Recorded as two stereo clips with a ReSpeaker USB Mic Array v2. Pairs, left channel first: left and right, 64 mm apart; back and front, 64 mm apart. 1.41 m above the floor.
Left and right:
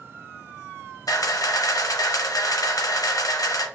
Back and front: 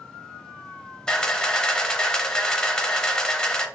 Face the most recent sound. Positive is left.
turn(degrees=105)